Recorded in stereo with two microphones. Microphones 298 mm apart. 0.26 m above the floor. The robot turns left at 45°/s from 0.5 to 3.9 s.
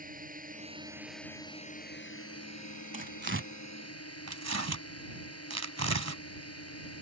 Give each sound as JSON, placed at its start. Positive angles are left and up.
{"t": 0.0, "sound": "a drone", "azimuth_deg": -150}
{"t": 2.9, "sound": "tearing paper", "side_deg": -25}